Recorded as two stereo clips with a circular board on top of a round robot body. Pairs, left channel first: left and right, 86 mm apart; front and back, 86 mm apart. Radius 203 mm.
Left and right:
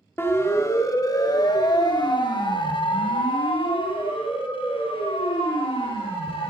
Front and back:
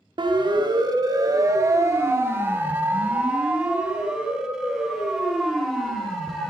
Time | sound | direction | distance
0.2 | a siren | 155° left | 2.5 m